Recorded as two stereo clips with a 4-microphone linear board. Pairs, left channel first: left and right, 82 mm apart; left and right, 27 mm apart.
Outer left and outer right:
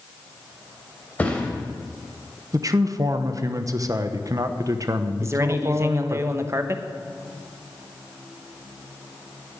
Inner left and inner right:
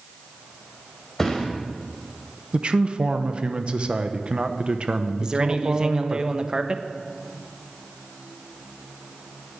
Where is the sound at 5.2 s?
35° right (ahead or behind), 1.1 m.